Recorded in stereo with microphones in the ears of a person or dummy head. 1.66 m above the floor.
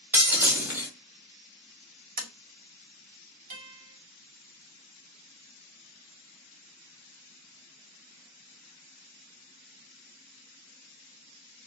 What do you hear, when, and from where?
0.1 s breaking glass: 10° right (ahead or behind), 1.7 m
2.2 s tapping: 40° right (ahead or behind), 0.8 m
3.5 s a guitar: 45° right (ahead or behind), 2.5 m